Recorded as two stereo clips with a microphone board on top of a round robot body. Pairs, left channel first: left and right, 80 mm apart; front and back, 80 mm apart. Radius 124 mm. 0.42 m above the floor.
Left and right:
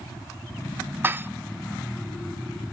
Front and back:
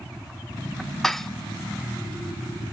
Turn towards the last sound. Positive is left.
turn(degrees=-80)